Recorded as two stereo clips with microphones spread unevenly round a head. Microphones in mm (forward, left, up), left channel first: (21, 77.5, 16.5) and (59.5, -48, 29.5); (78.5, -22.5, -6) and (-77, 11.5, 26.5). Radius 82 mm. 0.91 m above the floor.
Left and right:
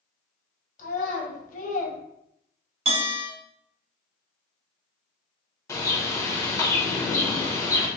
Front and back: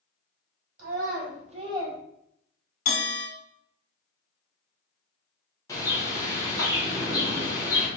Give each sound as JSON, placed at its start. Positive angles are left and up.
{"t": 0.8, "sound": "a child speaking", "azimuth_deg": 130, "distance_m": 1.6}
{"t": 2.9, "sound": "a bell", "azimuth_deg": -35, "distance_m": 1.5}
{"t": 5.7, "sound": "a bird", "azimuth_deg": 50, "distance_m": 1.0}